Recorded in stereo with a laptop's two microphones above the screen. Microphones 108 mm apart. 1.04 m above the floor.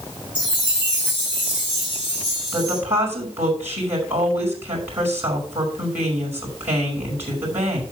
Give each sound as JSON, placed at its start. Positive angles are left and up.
{"t": 0.3, "sound": "a chime", "side_deg": 55, "distance_m": 5.5}
{"t": 2.5, "sound": "a woman speaking", "side_deg": -20, "distance_m": 5.5}